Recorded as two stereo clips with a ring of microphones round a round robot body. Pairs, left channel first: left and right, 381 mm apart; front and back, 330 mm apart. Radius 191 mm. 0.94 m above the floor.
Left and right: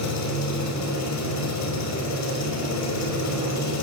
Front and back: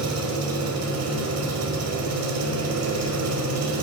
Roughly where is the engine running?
Behind left.